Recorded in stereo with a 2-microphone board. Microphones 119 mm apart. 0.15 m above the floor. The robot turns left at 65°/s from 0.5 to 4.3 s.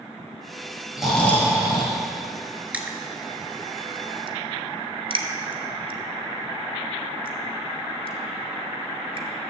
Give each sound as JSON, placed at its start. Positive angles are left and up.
{"t": 1.0, "sound": "snoring", "azimuth_deg": -175, "distance_m": 2.0}
{"t": 2.7, "sound": "crushing", "side_deg": -15, "distance_m": 1.0}